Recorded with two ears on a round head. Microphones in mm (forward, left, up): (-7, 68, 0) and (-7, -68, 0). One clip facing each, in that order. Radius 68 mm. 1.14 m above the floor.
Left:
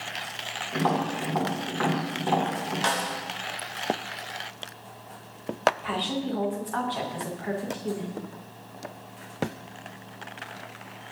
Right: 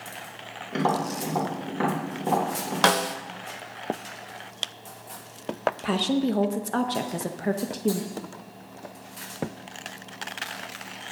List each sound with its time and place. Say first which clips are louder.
0.7 s tapping: right 1 dB; 25° right (ahead or behind), 3 m
2.8 s a snare drum: right 8 dB; 70° right (ahead or behind), 0.5 m
5.8 s a woman speaking: right 5 dB; 45° right (ahead or behind), 0.9 m